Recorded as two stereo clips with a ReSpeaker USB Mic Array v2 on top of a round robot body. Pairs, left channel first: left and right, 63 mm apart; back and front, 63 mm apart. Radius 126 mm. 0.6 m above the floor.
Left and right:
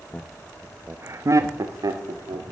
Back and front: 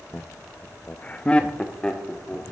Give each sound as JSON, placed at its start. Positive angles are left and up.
{"t": 0.1, "sound": "laughter", "azimuth_deg": 140, "distance_m": 0.6}